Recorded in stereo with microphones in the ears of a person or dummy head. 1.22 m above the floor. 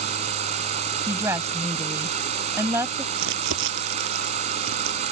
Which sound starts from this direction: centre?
A woman speaking, at 1.1 s.